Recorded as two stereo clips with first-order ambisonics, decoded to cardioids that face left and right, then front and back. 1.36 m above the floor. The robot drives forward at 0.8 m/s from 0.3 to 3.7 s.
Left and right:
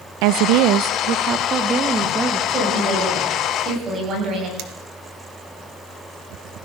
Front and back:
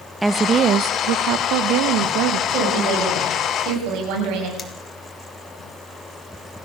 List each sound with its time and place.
0.2 s a woman speaking: 95° right, 0.6 m; by 2.4 s 165° right, 1.8 m
2.5 s a woman speaking: 145° right, 8.5 m; by 4.5 s 150° right, 9 m
4.6 s cutlery clinking: 70° right, 2 m